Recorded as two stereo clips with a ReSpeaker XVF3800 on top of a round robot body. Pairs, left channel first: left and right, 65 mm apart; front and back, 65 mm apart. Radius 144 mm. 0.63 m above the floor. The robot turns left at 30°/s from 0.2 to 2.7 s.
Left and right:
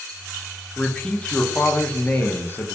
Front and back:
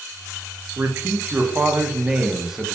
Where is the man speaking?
160° left, 0.5 m; by 2.8 s 100° left, 0.5 m.